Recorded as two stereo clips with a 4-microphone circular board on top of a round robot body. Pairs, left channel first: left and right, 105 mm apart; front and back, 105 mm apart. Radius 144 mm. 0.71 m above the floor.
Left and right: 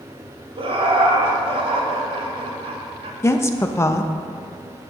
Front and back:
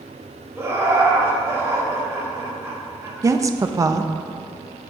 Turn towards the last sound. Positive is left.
turn(degrees=140)